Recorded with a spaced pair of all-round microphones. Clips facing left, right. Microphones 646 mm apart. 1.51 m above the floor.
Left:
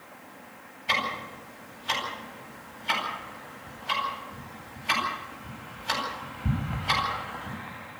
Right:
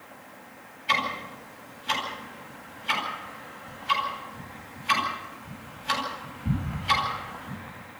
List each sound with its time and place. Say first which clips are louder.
0.9 s ticking: right 1 dB; 70° left (ahead or behind), 9.5 m